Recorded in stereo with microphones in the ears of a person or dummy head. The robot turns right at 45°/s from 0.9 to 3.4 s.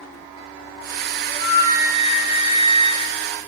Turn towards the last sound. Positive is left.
turn(degrees=-120)